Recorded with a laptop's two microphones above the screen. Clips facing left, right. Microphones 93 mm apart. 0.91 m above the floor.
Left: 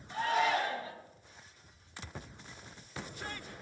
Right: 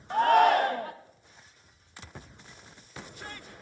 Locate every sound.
0.1 s a shout: 60° right (ahead or behind), 1.1 m